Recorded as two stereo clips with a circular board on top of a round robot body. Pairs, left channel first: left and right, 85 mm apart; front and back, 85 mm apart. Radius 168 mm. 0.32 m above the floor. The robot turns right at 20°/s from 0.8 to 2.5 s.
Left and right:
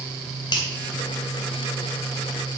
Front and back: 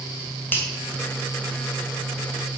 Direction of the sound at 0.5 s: 65° left.